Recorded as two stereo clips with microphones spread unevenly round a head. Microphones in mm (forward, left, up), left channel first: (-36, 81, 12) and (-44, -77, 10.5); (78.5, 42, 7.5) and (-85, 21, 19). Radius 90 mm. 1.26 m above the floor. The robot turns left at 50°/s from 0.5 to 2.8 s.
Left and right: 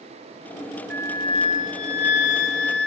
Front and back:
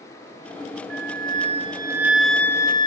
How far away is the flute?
About 0.5 m.